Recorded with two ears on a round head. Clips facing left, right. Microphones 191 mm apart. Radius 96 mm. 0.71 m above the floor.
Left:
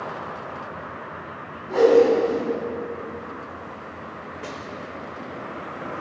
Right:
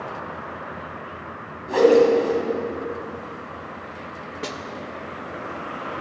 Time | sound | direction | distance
1.7 | a whoosh | 60° right (ahead or behind) | 2 m
4.4 | a snare drum | 50° right (ahead or behind) | 0.7 m